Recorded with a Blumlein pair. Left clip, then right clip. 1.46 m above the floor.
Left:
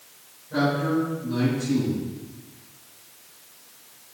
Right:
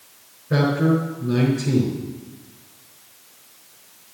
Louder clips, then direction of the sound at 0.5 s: Right 3 dB; 40° right.